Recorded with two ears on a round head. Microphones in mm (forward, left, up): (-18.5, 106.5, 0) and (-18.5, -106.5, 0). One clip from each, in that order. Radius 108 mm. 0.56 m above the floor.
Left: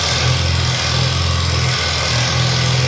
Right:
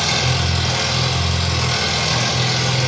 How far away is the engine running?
About 0.8 m.